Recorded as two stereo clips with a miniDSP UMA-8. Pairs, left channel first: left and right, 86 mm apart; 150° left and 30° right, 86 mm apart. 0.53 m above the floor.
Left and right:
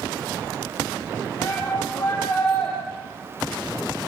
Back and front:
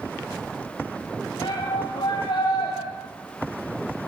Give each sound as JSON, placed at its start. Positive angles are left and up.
{"t": 1.4, "sound": "a shout", "azimuth_deg": 150, "distance_m": 4.0}